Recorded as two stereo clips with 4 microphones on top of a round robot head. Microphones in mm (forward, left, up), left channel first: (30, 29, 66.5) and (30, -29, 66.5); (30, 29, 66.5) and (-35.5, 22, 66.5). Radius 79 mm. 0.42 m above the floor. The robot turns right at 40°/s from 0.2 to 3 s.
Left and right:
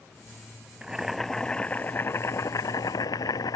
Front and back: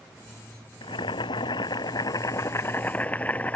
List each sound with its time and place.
0.8 s boiling: 15° right; by 3.6 s 75° left